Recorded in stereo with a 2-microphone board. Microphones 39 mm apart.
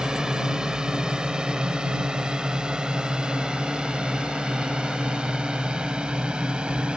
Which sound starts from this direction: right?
A drone, at 0.0 s.